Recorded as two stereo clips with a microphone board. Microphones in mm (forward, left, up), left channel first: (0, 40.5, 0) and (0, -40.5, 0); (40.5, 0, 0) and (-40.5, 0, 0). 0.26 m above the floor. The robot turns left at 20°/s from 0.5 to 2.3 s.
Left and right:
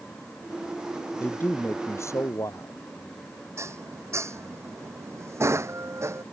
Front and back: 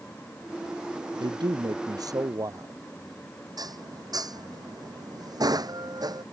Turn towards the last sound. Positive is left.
turn(degrees=-145)